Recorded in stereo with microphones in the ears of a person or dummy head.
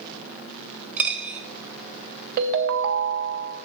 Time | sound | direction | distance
1.0 | a dropped coin | 10° right (ahead or behind) | 1.6 m
2.4 | a ringtone | 55° right (ahead or behind) | 0.7 m